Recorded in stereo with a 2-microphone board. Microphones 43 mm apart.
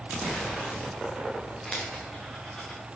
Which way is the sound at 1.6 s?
15° left (ahead or behind).